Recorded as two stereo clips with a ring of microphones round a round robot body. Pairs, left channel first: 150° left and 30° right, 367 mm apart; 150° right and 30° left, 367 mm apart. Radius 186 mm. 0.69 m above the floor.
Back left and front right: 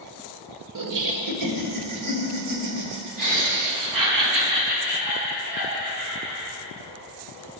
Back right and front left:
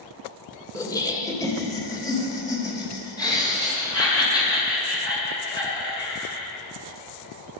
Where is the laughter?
70° right, 1.8 m.